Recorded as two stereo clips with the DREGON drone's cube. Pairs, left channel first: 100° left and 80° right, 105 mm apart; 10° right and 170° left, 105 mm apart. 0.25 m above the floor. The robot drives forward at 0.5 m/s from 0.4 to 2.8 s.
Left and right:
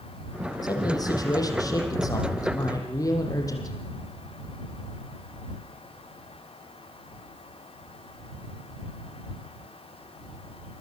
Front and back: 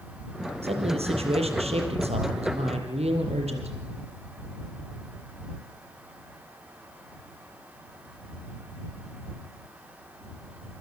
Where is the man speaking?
150° left, 6.5 m; by 3.8 s 155° left, 7.5 m.